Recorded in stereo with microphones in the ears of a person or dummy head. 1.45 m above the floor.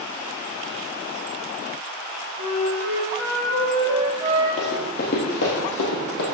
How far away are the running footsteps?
About 2.5 m.